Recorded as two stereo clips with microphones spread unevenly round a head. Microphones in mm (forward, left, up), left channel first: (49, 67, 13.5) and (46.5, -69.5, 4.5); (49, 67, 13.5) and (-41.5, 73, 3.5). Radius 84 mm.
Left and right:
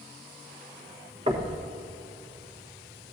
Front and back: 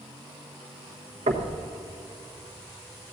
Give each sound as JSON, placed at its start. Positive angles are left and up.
{"t": 1.3, "sound": "knocking", "azimuth_deg": -150, "distance_m": 1.2}